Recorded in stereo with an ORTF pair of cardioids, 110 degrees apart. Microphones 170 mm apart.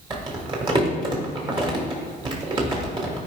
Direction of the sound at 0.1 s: 30° right.